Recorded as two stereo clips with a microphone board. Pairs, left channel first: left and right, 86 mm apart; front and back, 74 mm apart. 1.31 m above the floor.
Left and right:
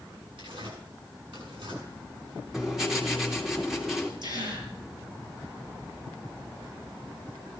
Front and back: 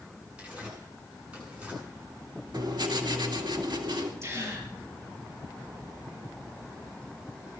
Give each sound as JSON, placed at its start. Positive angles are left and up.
{"t": 0.4, "sound": "tearing paper", "azimuth_deg": -105, "distance_m": 8.5}
{"t": 2.5, "sound": "writing", "azimuth_deg": -175, "distance_m": 3.0}
{"t": 4.2, "sound": "a gasp", "azimuth_deg": -125, "distance_m": 6.0}